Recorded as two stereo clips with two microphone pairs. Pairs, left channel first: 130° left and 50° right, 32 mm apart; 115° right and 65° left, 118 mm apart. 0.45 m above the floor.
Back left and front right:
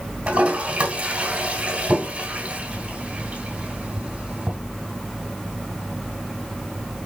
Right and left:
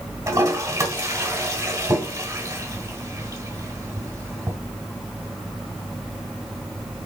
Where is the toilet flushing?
Straight ahead, 2.5 m.